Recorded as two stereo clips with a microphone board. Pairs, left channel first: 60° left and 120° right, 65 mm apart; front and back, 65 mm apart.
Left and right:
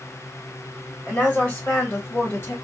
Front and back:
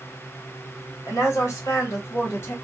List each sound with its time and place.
1.1 s a woman speaking: 5° right, 1.7 m; by 2.5 s 30° left, 1.4 m